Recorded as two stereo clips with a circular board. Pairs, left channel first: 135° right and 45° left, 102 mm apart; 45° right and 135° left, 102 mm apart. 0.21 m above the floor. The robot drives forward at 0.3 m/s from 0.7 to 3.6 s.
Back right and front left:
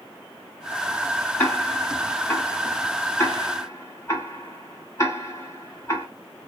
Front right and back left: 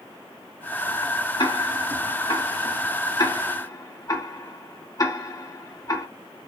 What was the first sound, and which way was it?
Ticking, 65° right.